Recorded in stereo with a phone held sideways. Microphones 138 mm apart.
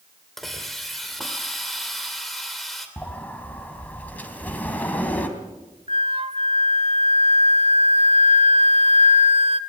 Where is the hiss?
Centre (ahead or behind), 2.5 m.